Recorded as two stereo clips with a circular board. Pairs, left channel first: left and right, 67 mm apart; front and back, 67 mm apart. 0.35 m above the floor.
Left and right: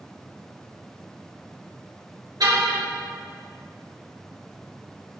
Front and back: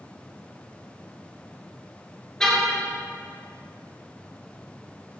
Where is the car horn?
80° right, 3.5 m.